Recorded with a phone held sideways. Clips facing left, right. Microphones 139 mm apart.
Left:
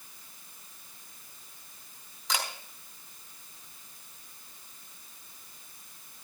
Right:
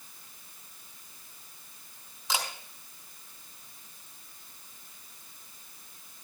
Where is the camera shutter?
5° right (ahead or behind), 3 m.